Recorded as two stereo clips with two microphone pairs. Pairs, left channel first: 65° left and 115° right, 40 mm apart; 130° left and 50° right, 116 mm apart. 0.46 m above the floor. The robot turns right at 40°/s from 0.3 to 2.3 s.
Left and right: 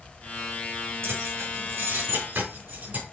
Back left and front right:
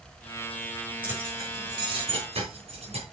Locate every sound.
1.0 s keys jangling: 125° right, 3.5 m; by 3.0 s 75° right, 3.5 m